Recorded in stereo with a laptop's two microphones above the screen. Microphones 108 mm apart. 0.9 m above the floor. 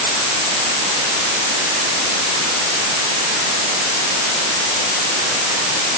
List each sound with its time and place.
Only background noise.